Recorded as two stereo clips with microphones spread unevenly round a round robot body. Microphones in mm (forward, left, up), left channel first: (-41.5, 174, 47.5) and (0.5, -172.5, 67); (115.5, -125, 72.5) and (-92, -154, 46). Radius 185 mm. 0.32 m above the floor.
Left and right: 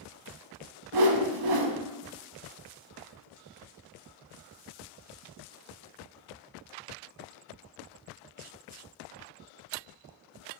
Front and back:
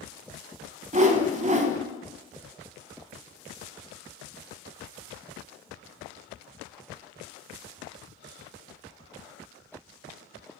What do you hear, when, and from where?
0.9 s a whoosh: 110° right, 0.5 m